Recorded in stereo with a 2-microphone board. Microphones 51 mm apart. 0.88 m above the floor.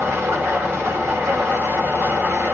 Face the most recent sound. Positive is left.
turn(degrees=-55)  # may be behind; listen again after turning